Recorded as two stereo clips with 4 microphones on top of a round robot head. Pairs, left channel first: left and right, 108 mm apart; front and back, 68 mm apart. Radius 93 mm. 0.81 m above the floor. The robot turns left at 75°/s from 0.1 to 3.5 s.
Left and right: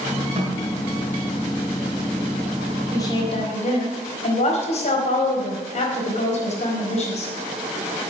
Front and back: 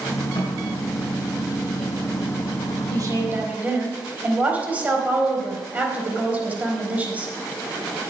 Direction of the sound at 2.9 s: 155° left.